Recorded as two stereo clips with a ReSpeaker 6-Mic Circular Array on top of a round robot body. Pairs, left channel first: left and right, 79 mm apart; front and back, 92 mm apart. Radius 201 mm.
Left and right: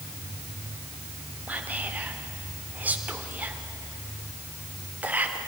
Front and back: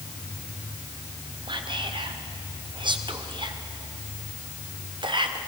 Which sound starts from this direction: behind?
Whispering, at 1.5 s.